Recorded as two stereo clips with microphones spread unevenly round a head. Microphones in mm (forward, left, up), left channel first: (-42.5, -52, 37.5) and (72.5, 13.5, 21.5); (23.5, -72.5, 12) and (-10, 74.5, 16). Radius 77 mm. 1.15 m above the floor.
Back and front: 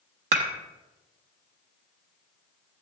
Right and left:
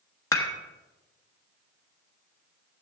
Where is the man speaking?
I don't hear a man speaking.